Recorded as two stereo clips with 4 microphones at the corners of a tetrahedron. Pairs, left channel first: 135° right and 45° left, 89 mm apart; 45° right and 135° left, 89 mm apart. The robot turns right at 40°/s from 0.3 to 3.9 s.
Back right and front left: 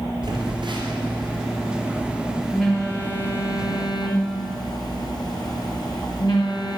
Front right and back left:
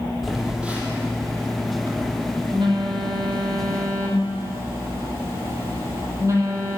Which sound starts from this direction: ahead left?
A phone buzzing, at 0.2 s.